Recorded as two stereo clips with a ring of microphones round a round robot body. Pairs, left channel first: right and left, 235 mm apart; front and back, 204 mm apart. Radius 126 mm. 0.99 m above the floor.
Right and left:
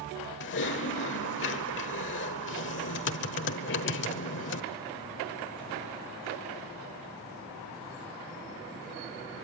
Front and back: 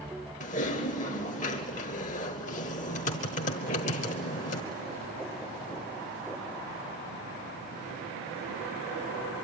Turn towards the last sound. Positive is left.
turn(degrees=-55)